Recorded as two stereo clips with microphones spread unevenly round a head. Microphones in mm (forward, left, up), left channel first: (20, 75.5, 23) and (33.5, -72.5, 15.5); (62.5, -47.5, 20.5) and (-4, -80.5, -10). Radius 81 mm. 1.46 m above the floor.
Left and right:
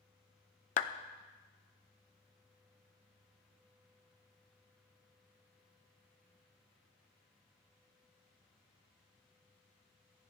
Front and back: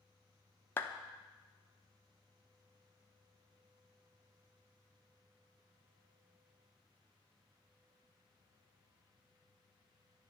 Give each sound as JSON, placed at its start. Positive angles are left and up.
{"t": 0.8, "sound": "a clap", "azimuth_deg": 70, "distance_m": 0.7}